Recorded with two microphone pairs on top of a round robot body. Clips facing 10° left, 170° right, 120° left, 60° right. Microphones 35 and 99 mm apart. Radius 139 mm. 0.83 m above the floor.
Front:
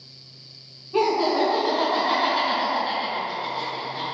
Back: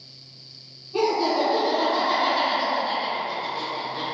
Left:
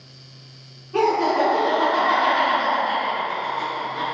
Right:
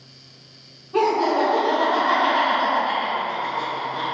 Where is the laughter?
20° left, 1.4 m; by 4.0 s 75° right, 0.9 m.